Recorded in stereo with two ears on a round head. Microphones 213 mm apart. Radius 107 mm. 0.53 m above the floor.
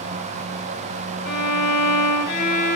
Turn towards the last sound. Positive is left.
turn(degrees=45)  # may be behind; listen again after turning